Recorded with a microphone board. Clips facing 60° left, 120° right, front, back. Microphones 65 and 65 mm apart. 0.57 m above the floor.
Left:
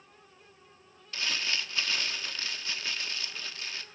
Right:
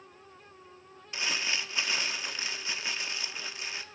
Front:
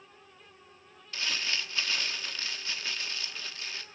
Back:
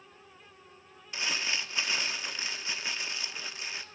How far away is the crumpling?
About 1.0 m.